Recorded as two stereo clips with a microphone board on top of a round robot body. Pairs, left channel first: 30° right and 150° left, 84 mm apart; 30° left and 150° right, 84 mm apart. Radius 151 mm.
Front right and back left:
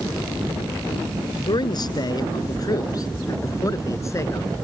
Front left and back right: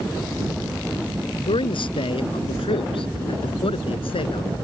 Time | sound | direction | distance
1.5 | a man speaking | 10° left | ?